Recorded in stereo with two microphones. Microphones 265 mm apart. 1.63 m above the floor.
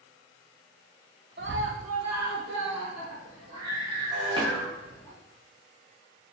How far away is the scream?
About 0.6 m.